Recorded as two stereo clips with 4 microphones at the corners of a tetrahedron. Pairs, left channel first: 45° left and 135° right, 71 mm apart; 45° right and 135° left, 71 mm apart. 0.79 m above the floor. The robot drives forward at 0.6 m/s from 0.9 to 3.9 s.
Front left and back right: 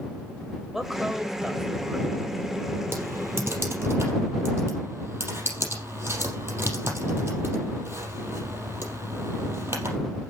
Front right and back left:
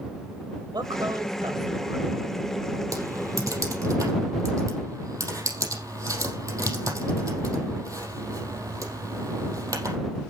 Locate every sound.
0.7 s a woman speaking: 140° left, 3 m; by 2.0 s 145° left, 3.5 m
2.9 s typing on a keyboard: 170° left, 3.5 m; by 10.0 s 175° left, 4.5 m